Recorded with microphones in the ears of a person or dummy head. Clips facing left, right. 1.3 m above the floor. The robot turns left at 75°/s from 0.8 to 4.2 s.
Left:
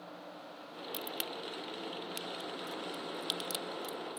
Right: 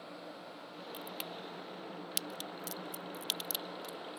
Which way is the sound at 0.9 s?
30° left (ahead or behind).